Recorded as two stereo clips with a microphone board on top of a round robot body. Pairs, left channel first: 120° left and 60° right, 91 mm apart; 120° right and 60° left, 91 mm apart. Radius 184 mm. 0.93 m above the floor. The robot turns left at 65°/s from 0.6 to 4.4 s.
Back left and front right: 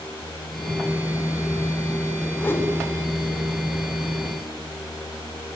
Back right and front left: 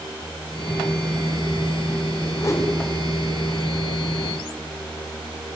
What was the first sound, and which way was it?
A whoosh, 170° right.